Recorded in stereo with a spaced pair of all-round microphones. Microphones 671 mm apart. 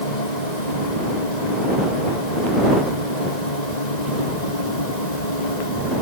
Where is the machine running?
80° left.